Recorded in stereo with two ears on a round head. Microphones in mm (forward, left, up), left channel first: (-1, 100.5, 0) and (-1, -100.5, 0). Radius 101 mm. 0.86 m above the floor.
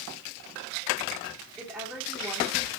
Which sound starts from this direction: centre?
A woman speaking, at 1.6 s.